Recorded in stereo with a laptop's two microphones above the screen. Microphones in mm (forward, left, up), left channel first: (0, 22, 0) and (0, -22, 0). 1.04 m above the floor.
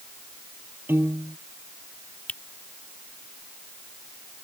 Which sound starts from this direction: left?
A finger snap, at 2.3 s.